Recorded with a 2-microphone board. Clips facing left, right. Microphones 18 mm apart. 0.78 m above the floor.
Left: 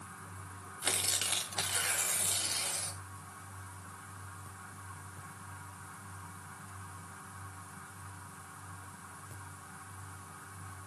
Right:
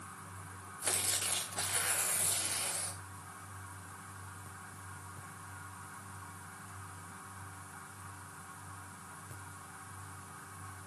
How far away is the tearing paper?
About 2.0 m.